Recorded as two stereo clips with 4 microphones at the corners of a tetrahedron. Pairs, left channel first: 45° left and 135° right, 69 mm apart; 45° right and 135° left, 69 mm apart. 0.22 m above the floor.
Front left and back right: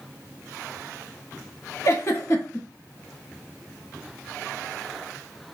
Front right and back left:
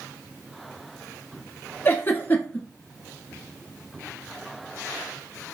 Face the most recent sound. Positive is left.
turn(degrees=5)